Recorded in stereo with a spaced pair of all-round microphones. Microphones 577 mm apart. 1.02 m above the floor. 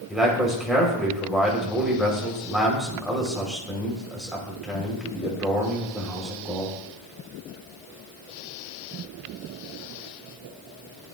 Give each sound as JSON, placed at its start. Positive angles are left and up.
{"t": 0.1, "sound": "a man speaking", "side_deg": 0, "distance_m": 3.5}